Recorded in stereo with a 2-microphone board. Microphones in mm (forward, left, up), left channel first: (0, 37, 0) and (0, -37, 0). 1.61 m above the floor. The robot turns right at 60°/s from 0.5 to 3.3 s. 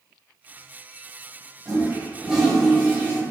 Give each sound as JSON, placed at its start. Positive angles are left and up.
{"t": 1.6, "sound": "a toilet flushing", "azimuth_deg": -50, "distance_m": 1.3}